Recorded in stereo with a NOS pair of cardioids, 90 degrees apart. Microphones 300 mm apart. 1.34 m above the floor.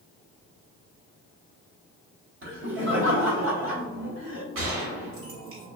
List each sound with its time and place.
2.4 s laughter: 45° right, 1.3 m
4.5 s a gunshot: 45° right, 1.3 m